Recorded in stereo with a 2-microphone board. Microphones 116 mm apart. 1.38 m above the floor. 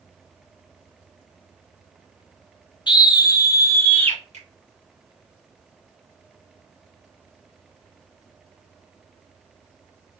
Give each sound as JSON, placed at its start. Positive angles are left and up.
{"t": 2.9, "sound": "a scream", "side_deg": 45, "distance_m": 0.6}
{"t": 4.3, "sound": "a finger snap", "side_deg": -75, "distance_m": 1.6}